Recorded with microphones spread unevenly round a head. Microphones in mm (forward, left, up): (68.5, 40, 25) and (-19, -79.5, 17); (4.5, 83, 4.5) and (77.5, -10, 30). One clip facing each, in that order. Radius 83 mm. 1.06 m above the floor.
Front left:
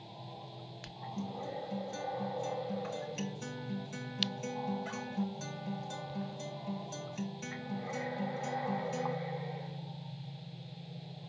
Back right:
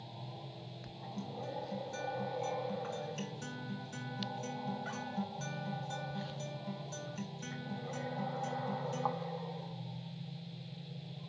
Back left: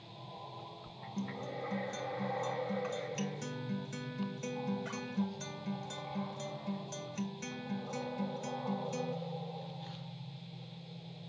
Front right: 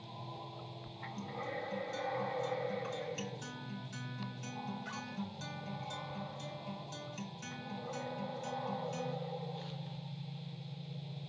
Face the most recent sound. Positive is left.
turn(degrees=135)